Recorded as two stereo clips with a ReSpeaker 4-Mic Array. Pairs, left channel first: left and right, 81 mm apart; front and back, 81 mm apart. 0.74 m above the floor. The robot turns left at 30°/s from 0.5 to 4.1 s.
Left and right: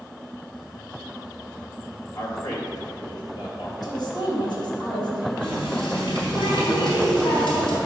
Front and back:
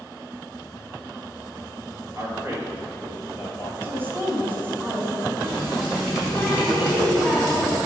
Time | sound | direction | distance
2.1 | a man speaking | 135° left | 2.5 m
3.8 | a woman speaking | 125° left | 3 m
5.4 | a running tap | 95° left | 3.5 m